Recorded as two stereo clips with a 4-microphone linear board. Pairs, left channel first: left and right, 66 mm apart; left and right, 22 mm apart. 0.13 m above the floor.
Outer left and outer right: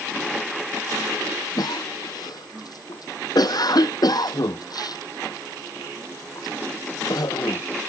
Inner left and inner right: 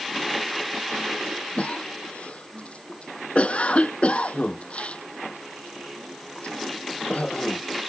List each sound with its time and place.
1.6 s a cough: 75° left (ahead or behind)